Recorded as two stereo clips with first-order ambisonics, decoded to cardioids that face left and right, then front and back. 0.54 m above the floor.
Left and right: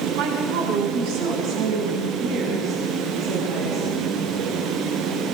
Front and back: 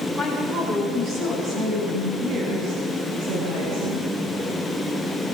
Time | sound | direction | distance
0.1 | a woman speaking | 100° right | 5.5 m